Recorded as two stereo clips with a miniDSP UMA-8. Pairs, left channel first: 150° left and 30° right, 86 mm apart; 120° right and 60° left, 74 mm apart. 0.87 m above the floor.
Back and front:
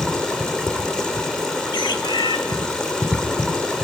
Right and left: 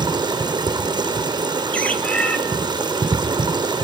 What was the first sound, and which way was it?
Running water, 65° left.